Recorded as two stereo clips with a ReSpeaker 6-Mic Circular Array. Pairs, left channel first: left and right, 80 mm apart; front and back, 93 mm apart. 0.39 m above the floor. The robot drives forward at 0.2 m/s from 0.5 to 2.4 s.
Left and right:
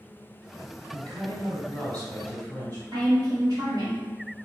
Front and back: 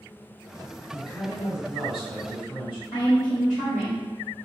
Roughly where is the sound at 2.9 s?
Right.